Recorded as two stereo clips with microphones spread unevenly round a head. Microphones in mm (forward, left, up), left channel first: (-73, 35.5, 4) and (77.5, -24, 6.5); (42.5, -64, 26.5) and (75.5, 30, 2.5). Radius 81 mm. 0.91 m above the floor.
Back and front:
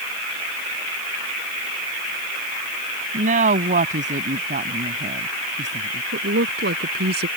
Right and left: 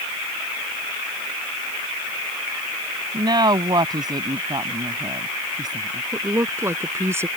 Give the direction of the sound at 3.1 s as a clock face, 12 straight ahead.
11 o'clock.